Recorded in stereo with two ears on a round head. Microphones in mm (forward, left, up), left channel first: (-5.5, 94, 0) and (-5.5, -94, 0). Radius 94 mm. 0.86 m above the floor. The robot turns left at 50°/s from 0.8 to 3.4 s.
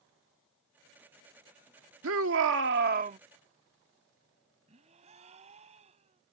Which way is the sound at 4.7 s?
35° right (ahead or behind).